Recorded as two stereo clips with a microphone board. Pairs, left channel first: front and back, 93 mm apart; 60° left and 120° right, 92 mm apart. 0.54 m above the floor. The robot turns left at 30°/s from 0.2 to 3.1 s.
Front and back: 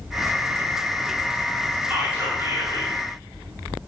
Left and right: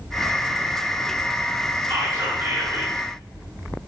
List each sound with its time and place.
1.9 s whispering: 120° right, 1.0 m; by 2.9 s 150° right, 1.0 m